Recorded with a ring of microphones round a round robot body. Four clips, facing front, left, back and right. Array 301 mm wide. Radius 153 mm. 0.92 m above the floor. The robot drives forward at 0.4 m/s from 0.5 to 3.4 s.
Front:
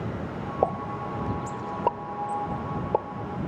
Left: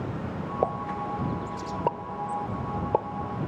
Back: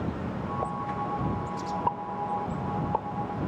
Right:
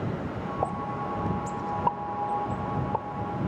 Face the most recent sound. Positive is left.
turn(degrees=50)